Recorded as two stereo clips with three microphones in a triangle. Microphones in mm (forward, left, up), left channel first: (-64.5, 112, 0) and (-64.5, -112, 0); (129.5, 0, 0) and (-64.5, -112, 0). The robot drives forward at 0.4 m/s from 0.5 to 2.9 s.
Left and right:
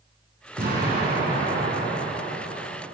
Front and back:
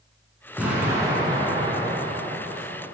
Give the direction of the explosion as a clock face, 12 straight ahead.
2 o'clock.